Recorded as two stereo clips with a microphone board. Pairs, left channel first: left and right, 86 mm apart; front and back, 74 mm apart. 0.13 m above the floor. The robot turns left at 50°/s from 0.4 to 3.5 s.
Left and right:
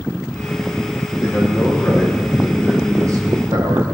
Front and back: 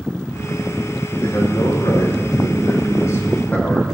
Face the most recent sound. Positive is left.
turn(degrees=-65)